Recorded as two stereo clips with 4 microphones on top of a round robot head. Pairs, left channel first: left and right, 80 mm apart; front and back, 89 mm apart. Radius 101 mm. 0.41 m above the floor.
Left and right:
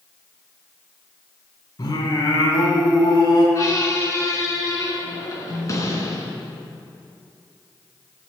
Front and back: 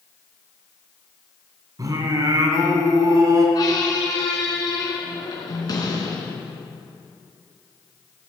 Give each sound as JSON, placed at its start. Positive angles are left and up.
{"t": 1.8, "sound": "singing", "azimuth_deg": 135, "distance_m": 2.5}
{"t": 3.5, "sound": "a squeak", "azimuth_deg": 40, "distance_m": 3.0}